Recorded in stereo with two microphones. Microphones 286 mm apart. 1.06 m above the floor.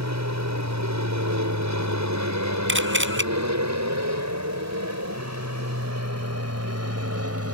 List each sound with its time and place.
0.0 s an aircraft: 65° right (ahead or behind); by 7.5 s 55° right (ahead or behind)
2.7 s a camera shutter: 40° right (ahead or behind)